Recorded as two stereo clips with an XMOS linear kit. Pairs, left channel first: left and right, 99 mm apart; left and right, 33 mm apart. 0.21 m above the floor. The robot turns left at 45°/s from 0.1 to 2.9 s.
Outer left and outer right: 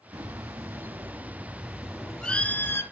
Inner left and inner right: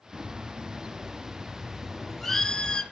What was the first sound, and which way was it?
A bird, 100° right.